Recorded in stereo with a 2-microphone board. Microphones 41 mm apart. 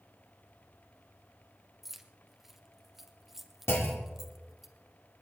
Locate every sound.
1.8 s keys jangling: 5° right (ahead or behind), 1.2 m
3.7 s a clunk: 80° left, 2.5 m